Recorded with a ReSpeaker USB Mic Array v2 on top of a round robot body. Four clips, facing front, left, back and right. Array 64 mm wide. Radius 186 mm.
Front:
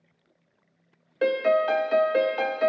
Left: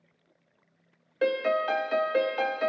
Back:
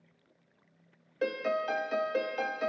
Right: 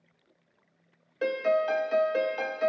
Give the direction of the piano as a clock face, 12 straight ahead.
11 o'clock.